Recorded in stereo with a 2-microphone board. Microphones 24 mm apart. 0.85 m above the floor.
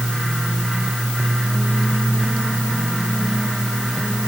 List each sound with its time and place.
Only background noise.